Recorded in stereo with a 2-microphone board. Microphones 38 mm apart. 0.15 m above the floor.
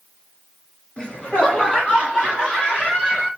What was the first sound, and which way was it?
Laughter, 25° left (ahead or behind).